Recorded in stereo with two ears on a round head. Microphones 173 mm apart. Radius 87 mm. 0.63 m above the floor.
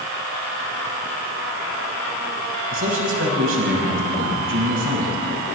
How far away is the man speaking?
About 5.5 m.